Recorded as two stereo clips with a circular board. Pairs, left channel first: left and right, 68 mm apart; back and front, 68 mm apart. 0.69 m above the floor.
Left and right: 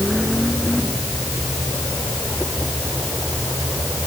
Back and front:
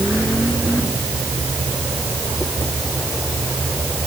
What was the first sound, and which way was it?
Only background noise.